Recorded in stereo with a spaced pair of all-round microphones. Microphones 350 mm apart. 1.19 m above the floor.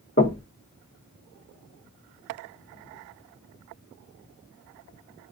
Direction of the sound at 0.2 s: 35° left (ahead or behind).